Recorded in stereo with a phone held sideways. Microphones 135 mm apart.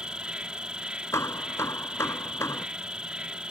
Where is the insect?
5° right (ahead or behind).